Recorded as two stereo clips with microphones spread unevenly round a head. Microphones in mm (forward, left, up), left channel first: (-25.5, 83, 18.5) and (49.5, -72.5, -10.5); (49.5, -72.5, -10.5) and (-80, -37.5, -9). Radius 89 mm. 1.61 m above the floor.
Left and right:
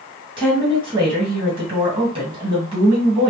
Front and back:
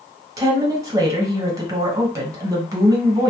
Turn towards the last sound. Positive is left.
turn(degrees=-130)